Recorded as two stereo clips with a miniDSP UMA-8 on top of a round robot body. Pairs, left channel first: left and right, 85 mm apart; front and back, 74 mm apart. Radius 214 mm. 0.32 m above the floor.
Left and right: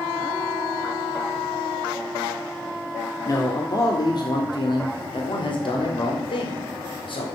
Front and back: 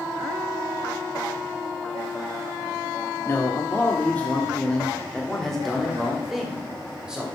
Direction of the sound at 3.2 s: 50° left.